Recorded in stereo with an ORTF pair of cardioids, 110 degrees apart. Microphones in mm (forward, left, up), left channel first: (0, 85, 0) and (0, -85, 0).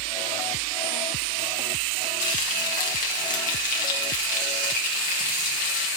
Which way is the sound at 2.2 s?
55° left.